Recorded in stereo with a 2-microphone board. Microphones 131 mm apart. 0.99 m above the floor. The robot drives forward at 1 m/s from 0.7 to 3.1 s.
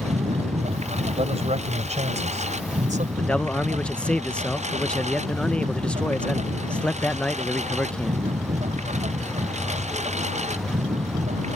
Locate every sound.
0.0 s a lawn mower: 55° right (ahead or behind)
1.1 s a man speaking: 50° right (ahead or behind); by 3.1 s 65° right (ahead or behind)
3.2 s a man speaking: 5° left (ahead or behind)